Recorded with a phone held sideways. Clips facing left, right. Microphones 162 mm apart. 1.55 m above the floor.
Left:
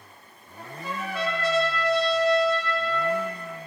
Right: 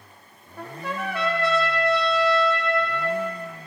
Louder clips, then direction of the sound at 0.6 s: Right 3 dB; 65° right (ahead or behind).